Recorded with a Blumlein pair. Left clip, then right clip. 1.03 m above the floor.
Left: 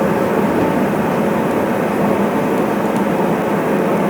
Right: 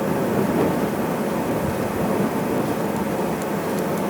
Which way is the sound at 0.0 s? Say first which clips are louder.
Left 6 dB; 25° left.